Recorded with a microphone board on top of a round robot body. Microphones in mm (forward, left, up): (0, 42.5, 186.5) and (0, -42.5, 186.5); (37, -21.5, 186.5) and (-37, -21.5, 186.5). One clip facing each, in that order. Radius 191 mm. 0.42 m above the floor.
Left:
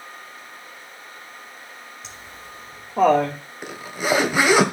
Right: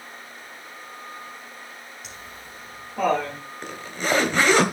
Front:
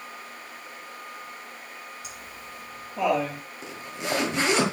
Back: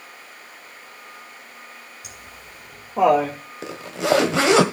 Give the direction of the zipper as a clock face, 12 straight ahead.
6 o'clock.